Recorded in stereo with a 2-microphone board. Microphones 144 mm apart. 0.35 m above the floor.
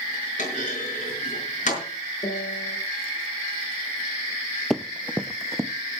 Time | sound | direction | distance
0.4 | a clunk | 55° left (ahead or behind) | 6 m
2.2 | a piano | 50° left (ahead or behind) | 8 m
4.7 | running footsteps | centre (ahead or behind) | 0.6 m